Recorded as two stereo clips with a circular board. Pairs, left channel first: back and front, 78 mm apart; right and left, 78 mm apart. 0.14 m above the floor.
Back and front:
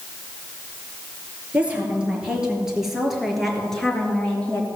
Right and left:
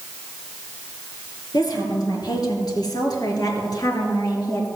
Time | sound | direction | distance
1.5 | a woman speaking | 70° right | 3.5 m